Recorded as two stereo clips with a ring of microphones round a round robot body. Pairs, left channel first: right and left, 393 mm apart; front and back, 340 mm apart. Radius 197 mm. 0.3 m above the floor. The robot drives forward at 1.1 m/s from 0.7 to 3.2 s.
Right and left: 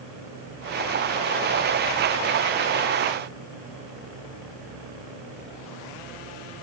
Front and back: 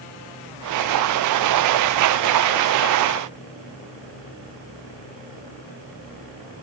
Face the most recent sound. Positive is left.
No sound to turn to.